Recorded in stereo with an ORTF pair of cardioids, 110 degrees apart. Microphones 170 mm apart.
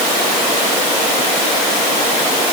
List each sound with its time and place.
Only background noise.